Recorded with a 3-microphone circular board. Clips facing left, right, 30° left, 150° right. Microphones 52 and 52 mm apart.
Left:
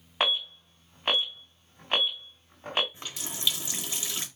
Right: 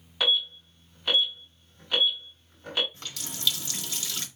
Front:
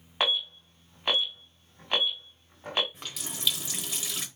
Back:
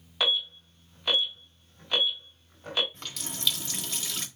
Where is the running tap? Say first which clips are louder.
Left 1 dB, even; 95° left, 0.9 m.